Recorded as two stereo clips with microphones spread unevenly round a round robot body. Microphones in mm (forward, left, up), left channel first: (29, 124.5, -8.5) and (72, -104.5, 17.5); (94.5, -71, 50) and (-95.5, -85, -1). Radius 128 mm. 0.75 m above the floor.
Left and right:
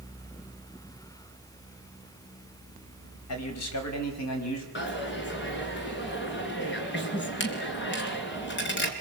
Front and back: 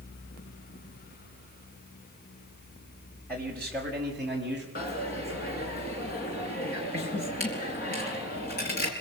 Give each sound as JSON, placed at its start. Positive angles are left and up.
{"t": 3.3, "sound": "a man speaking", "azimuth_deg": 90, "distance_m": 4.5}
{"t": 4.8, "sound": "a dropped coin", "azimuth_deg": 60, "distance_m": 4.0}